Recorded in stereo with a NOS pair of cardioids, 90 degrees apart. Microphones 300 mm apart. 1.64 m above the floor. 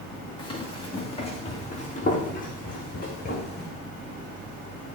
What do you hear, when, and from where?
0.4 s running footsteps: 15° left, 5.5 m; by 3.7 s 35° left, 4.5 m